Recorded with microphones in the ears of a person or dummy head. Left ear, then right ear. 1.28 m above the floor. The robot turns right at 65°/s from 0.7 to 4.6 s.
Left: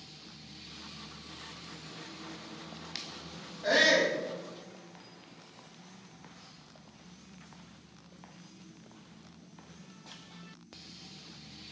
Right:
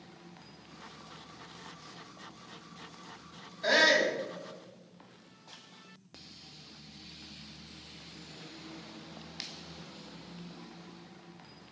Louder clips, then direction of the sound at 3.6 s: Even; 50° right.